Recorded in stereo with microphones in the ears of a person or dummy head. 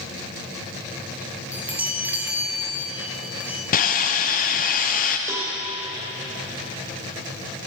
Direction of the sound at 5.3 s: 15° right (ahead or behind).